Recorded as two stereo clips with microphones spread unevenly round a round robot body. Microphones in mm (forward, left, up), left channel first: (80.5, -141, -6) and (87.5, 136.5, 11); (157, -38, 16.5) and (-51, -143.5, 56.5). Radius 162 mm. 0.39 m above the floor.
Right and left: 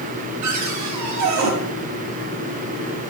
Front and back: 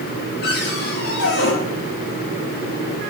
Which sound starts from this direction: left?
A cupboard door, at 0.4 s.